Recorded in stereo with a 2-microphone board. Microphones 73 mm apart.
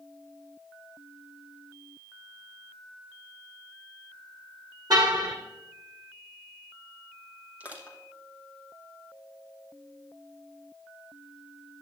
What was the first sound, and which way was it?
A car horn, 65° right (ahead or behind).